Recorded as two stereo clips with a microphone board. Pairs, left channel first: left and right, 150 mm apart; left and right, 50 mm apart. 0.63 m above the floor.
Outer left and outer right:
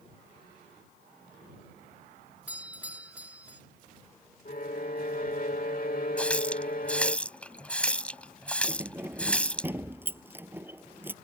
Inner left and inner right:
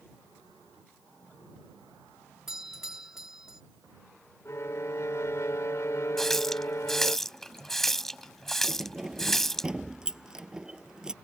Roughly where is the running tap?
Centre.